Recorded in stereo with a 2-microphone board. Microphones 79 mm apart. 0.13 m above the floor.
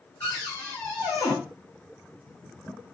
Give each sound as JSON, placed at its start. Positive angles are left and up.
{"t": 0.2, "sound": "a cupboard door", "side_deg": 20, "distance_m": 2.5}